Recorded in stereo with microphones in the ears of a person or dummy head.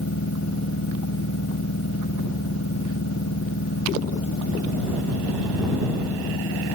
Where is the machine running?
75° left (ahead or behind).